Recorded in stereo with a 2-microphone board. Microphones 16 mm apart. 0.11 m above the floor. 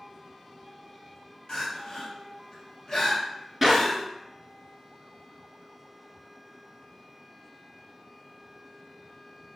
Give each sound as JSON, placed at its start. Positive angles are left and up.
{"t": 1.5, "sound": "crying", "side_deg": 35, "distance_m": 2.5}
{"t": 3.6, "sound": "a clap", "side_deg": -10, "distance_m": 1.0}